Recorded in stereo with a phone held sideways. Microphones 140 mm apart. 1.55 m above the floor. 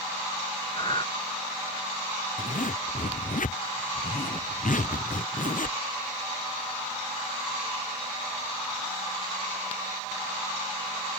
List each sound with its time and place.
0.7 s breathing: 40° left (ahead or behind)
2.4 s a zipper: 70° left (ahead or behind)